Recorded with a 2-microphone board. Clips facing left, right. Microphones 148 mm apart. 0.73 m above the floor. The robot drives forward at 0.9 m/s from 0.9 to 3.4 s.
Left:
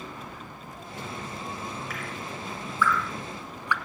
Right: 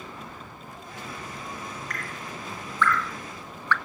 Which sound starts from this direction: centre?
Dripping, at 1.9 s.